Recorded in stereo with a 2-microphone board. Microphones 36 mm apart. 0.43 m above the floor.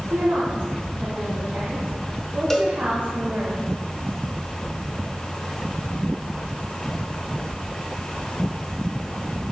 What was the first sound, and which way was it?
A woman speaking, 65° right (ahead or behind).